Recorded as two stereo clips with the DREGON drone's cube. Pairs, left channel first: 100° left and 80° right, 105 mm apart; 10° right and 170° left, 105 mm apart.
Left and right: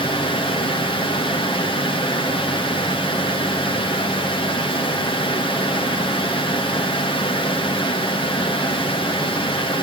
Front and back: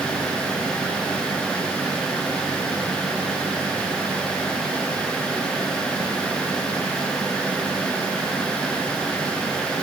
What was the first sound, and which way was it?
Only background noise.